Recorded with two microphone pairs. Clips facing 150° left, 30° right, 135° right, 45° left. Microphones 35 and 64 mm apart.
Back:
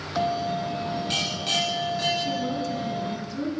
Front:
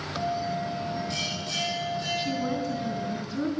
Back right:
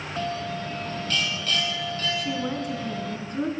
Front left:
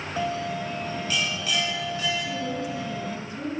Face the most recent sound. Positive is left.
turn(degrees=-100)